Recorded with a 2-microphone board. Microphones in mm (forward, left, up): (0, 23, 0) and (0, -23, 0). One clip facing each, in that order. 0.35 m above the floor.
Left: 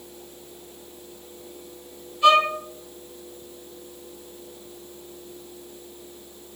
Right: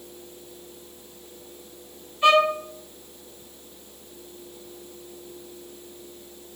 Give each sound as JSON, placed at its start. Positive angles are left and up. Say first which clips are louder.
{"t": 2.2, "sound": "a violin", "louder": "left 1 dB", "side_deg": -30, "distance_m": 2.0}